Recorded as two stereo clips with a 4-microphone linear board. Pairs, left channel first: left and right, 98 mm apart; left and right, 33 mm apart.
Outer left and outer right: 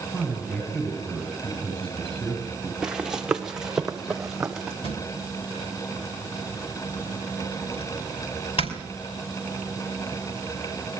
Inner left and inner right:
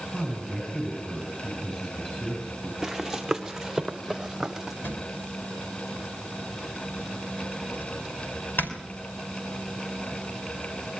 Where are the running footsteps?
10° right (ahead or behind), 1.2 m; by 4.7 s 5° right (ahead or behind), 2.0 m.